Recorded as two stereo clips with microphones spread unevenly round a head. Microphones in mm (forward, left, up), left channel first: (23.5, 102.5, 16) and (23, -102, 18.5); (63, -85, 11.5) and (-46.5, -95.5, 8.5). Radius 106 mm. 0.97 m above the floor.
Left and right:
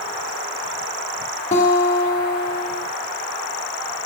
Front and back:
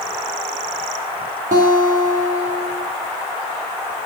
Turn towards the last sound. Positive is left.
turn(degrees=150)